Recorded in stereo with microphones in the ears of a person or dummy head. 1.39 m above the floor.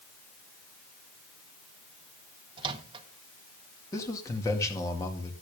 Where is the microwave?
25° right (ahead or behind), 1.2 m.